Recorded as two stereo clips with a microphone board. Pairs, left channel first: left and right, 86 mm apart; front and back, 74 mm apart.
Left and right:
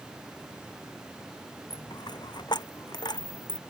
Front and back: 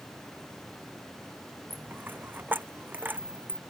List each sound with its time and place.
1.7 s a dropped coin: 115° left